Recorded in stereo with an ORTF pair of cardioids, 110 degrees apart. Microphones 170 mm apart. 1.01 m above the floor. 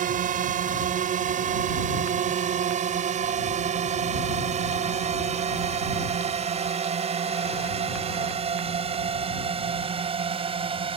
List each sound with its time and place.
0.0 s a drone: 55° right; by 11.0 s 35° right